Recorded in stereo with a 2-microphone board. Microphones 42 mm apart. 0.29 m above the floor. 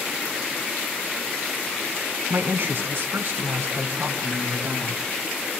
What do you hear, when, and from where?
2.3 s a woman speaking: 60° right (ahead or behind), 3 m; by 5.0 s 75° right (ahead or behind), 5 m